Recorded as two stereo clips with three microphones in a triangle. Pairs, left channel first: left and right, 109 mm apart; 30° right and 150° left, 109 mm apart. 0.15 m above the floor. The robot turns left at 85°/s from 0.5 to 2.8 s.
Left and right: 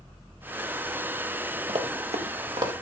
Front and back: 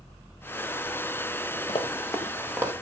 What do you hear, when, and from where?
1.7 s running footsteps: 60° right, 3 m; by 2.7 s 150° right, 3.5 m